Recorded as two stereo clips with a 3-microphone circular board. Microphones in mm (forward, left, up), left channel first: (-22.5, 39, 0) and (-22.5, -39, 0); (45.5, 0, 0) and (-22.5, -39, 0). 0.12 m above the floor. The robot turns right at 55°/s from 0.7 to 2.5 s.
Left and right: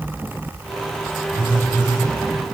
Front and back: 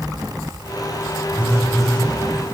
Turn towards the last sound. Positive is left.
turn(degrees=-20)